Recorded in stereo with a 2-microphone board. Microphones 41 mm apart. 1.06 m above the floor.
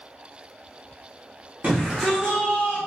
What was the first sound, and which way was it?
A shout, 35° right (ahead or behind).